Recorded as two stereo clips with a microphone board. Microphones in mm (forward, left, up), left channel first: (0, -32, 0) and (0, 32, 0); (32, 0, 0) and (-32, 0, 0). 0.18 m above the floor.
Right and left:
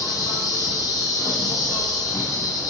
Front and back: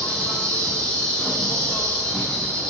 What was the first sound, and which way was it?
An insect, 75° right.